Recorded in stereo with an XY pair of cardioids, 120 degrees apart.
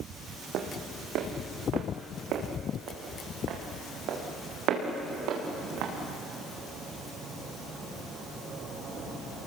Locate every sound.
0.5 s footsteps: 70° right, 3.5 m; by 5.9 s 75° right, 6 m